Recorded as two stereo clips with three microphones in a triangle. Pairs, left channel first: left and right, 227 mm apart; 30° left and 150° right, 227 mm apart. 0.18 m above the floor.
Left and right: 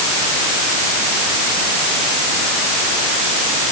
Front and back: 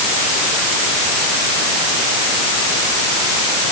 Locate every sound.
Only background noise.